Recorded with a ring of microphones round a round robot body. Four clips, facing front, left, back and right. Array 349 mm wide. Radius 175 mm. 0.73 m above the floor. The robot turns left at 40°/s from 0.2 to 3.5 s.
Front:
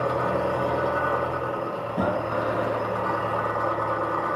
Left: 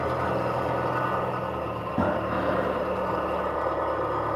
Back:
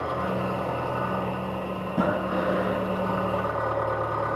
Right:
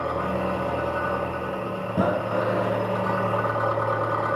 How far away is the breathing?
About 3 m.